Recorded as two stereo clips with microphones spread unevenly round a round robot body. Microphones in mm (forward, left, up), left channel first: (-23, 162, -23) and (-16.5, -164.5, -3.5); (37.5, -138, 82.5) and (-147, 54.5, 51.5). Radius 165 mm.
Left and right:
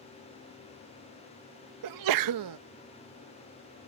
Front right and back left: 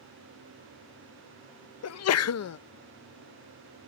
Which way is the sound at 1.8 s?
70° right.